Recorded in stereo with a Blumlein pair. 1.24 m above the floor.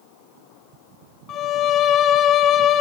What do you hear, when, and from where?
1.3 s a violin: 30° left, 0.9 m